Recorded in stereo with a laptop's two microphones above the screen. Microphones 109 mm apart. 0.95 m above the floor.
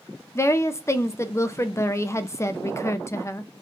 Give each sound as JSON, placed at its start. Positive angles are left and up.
{"t": 0.3, "sound": "a woman speaking", "side_deg": 25, "distance_m": 0.5}